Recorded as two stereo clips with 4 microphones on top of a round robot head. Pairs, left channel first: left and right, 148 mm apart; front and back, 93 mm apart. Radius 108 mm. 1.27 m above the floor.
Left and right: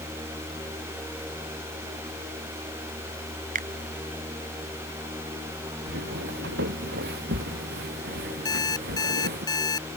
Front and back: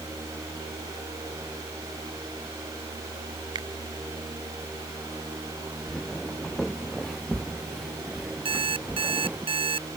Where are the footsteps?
90° right; by 9.4 s 95° right.